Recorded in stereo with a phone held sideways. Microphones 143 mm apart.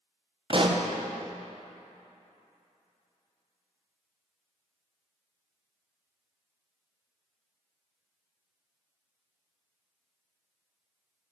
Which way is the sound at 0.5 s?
40° right (ahead or behind).